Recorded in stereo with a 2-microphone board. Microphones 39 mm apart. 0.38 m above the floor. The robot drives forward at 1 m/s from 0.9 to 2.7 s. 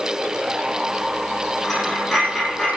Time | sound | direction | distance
1.6 | a dropped coin | 5° right (ahead or behind) | 7.5 m